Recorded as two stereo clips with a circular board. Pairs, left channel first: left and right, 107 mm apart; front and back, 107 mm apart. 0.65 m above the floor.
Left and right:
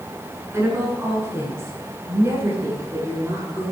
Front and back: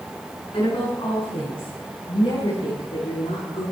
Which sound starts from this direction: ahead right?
A woman speaking, at 0.5 s.